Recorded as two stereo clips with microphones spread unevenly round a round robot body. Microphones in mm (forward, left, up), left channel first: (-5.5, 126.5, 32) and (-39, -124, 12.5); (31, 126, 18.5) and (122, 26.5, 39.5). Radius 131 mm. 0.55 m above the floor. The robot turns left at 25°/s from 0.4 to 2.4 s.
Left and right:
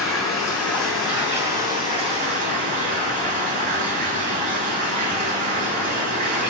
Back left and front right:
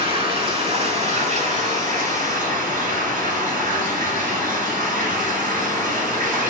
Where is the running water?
5° left, 1.5 m; by 6.5 s 45° right, 1.5 m.